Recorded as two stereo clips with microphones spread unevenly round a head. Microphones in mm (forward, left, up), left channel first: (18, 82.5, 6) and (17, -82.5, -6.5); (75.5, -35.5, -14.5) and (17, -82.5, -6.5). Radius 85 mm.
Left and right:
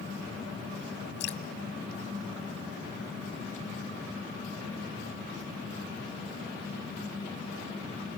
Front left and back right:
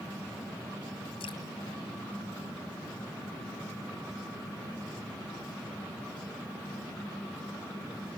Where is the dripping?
70° left, 2.5 m.